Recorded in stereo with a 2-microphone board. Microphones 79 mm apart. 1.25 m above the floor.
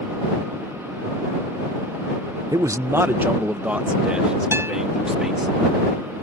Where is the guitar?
30° right (ahead or behind).